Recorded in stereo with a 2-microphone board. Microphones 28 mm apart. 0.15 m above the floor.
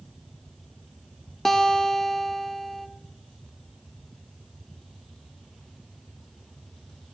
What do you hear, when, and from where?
1.4 s a guitar: 10° left (ahead or behind), 0.6 m